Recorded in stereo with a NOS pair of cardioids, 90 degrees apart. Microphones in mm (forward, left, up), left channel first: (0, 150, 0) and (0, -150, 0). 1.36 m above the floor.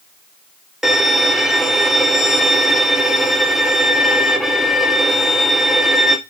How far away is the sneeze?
No sneeze in this recording.